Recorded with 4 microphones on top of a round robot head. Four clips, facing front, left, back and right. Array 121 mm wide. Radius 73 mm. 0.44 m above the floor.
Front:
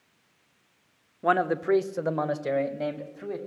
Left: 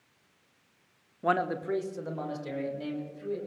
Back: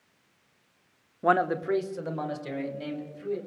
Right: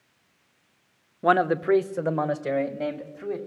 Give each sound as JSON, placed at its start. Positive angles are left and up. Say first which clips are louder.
{"t": 1.2, "sound": "a man speaking", "louder": "right 8 dB, even", "azimuth_deg": -105, "distance_m": 0.8}